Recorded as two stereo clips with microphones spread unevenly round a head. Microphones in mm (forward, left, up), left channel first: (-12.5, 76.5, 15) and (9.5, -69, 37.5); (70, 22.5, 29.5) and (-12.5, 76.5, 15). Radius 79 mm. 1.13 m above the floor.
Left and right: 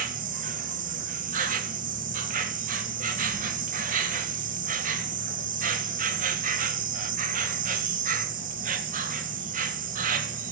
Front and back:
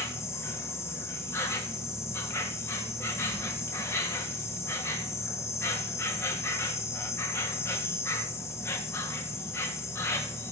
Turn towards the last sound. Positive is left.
turn(degrees=-105)